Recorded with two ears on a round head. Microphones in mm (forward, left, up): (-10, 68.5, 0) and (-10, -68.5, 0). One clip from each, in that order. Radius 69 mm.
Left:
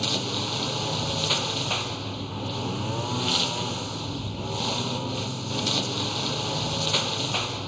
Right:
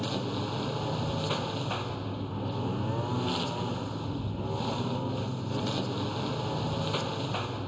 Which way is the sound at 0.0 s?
80° left.